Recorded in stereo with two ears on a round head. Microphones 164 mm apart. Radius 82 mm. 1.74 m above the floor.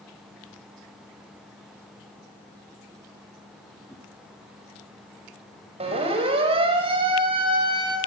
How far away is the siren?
About 7.5 m.